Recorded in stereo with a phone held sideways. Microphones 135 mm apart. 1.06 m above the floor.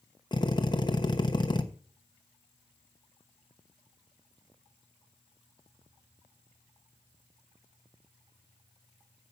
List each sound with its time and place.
0.3 s a drill: 35° left (ahead or behind), 1.1 m